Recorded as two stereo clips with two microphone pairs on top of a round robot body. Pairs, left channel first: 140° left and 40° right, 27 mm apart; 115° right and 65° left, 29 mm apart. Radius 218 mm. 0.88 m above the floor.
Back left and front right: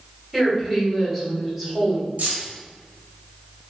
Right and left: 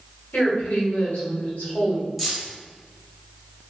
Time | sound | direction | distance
0.3 | a woman speaking | 120° right | 2.0 m
2.2 | keys jangling | 25° right | 1.4 m